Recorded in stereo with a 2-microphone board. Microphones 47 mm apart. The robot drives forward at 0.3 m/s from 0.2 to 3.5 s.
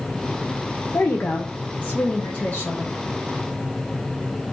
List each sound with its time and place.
0.9 s a woman speaking: 55° left (ahead or behind), 0.7 m; by 3.0 s 30° left (ahead or behind), 1.1 m